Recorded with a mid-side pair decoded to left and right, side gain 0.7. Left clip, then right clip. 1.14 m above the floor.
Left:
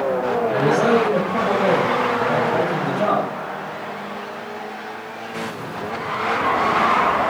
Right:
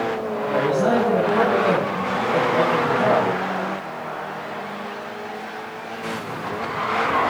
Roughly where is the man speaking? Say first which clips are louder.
Left 1 dB; ahead left.